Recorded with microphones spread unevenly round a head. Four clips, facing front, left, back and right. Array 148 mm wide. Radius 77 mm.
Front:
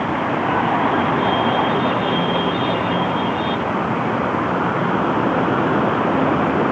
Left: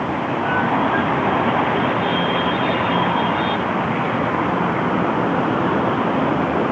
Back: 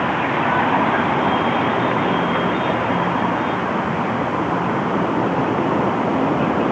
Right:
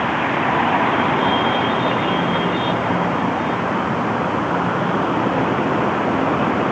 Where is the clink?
I don't hear a clink.